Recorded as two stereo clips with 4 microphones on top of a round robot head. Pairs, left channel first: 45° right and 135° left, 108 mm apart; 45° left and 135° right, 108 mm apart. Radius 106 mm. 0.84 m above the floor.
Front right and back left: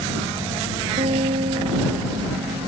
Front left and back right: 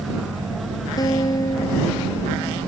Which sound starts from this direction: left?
A guitar, at 1.0 s.